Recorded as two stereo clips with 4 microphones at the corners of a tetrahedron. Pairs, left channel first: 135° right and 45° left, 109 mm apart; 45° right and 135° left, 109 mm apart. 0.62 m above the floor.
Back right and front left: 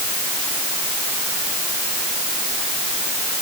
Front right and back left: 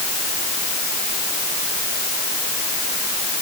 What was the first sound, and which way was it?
Only background noise.